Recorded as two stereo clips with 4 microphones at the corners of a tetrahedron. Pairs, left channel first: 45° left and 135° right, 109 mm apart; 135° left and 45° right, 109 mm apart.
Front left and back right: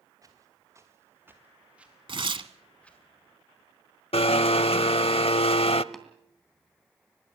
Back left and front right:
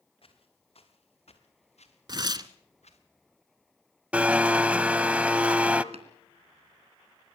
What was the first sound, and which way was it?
Footsteps, 165° left.